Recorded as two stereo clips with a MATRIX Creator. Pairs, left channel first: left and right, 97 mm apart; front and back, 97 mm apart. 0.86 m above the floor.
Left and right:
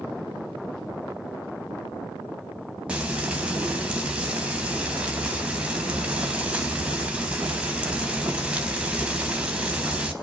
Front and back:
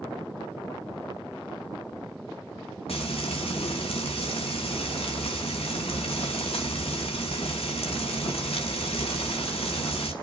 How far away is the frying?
About 4 m.